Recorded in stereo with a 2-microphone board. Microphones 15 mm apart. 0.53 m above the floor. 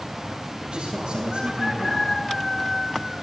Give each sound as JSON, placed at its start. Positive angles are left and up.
{"t": 0.6, "sound": "a man speaking", "side_deg": -60, "distance_m": 8.5}